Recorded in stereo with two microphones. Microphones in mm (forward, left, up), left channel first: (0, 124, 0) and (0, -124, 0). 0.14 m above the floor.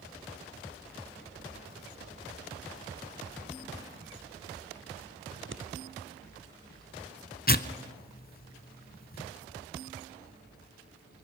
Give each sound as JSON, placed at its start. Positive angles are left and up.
{"t": 5.3, "sound": "scissors", "side_deg": -50, "distance_m": 1.1}
{"t": 7.5, "sound": "tearing paper", "side_deg": 40, "distance_m": 0.7}